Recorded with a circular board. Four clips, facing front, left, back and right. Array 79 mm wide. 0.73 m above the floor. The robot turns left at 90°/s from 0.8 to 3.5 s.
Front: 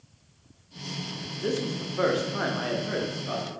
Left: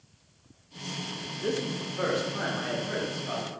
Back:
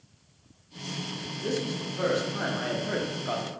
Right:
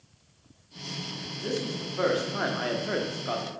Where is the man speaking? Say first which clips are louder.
Left 1 dB, front 2 dB; 40° left, 0.5 m; by 3.5 s 150° right, 0.5 m.